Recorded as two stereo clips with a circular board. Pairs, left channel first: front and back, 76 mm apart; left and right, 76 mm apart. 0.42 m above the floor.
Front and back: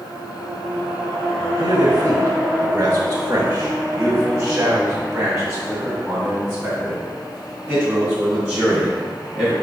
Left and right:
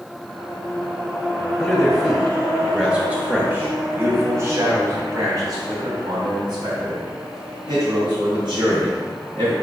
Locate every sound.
1.6 s a man speaking: 150° left, 1.3 m; by 9.5 s 85° right, 4 m